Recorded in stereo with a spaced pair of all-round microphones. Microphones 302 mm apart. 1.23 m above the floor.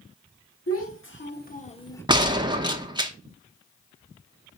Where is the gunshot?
15° right (ahead or behind), 0.8 m.